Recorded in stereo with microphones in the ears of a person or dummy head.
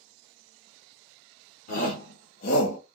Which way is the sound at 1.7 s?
50° left (ahead or behind).